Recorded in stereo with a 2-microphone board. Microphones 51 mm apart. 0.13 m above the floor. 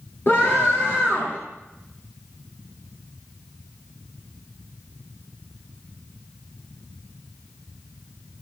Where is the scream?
45° left (ahead or behind), 3 m.